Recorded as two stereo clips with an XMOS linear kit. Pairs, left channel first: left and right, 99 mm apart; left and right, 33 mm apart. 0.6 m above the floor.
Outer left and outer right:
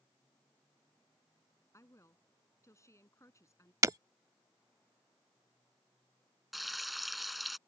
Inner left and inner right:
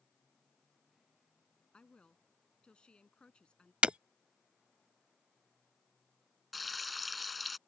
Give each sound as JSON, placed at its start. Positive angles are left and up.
{"t": 1.7, "sound": "a woman speaking", "side_deg": 30}
{"t": 3.8, "sound": "breaking glass", "side_deg": -35}
{"t": 6.5, "sound": "frying", "side_deg": 0}